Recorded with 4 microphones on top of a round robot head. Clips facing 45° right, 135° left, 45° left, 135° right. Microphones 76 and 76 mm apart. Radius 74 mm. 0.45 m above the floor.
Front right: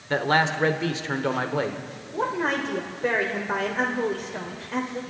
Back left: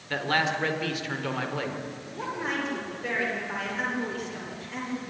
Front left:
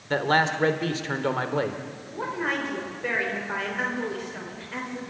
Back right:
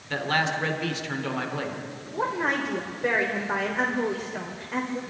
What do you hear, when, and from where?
0.1 s a man speaking: 5° left, 2 m
2.1 s a woman speaking: 70° right, 2.5 m